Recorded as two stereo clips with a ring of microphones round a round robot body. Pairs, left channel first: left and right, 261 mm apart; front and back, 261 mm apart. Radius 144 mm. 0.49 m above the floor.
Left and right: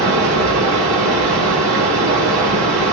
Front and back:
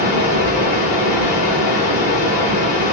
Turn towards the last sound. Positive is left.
turn(degrees=-45)